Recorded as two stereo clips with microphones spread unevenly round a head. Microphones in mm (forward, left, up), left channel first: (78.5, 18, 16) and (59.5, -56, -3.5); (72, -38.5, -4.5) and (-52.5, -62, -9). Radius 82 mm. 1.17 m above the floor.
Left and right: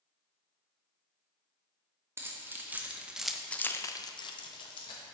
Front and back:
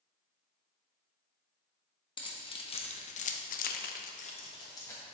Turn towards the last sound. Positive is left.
turn(degrees=85)